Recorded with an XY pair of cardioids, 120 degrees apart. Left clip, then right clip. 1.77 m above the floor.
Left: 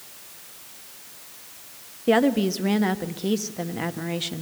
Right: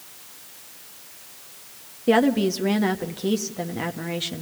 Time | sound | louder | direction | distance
2.1 | a woman speaking | right 1 dB | 5° right | 1.3 m